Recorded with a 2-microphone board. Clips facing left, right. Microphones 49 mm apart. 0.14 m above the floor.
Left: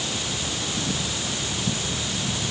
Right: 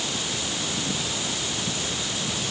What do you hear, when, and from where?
Only background noise.